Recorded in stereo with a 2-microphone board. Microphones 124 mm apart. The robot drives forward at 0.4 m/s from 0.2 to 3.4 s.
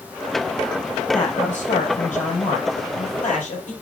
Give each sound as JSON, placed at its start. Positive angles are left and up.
{"t": 1.1, "sound": "a man speaking", "side_deg": 75, "distance_m": 5.0}